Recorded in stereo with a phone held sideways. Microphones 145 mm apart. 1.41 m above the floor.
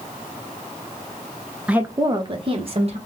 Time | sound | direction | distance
1.7 | a woman speaking | 5° right (ahead or behind) | 0.6 m